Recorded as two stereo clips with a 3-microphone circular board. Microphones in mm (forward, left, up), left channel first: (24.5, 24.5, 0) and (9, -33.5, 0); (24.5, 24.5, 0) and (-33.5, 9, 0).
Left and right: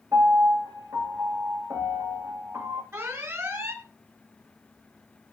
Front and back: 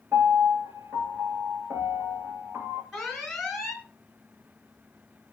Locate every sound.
0.1 s a piano: 125° right, 3 m
2.9 s an alarm: 75° right, 3 m